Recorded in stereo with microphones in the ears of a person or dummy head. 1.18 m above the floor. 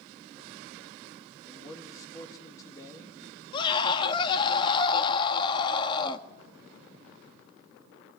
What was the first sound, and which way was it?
A man speaking, 20° left (ahead or behind).